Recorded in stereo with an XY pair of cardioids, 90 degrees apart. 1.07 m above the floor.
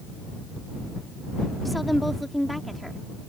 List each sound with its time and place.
1.6 s a woman speaking: straight ahead